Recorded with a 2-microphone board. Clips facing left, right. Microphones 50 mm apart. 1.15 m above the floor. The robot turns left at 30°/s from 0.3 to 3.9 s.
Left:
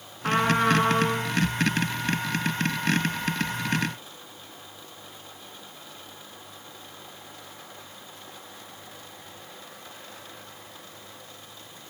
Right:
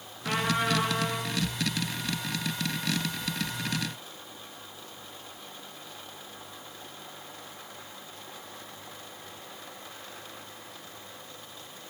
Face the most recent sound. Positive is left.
turn(degrees=-15)